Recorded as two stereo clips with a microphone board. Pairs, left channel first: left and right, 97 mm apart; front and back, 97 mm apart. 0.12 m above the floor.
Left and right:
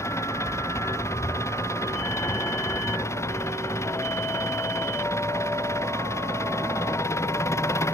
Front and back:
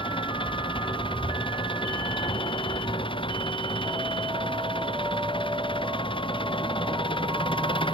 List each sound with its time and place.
0.0 s an engine running: 30° left